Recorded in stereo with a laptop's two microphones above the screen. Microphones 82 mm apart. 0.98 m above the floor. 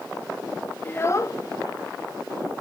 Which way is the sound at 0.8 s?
25° left (ahead or behind).